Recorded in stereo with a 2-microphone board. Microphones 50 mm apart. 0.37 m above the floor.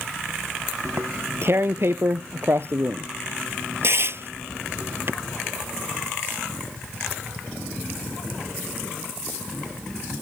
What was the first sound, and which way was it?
Tearing paper, 55° right (ahead or behind).